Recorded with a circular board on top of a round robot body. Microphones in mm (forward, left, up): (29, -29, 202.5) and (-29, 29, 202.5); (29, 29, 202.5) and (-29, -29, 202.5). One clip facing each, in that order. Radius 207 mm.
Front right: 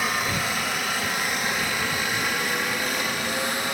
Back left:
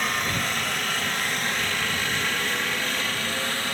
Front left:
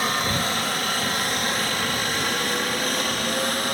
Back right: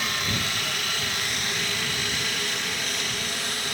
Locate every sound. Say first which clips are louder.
0.0 s a helicopter: front right 1 dB, front left 5 dB; 35° left; by 3.8 s 25° left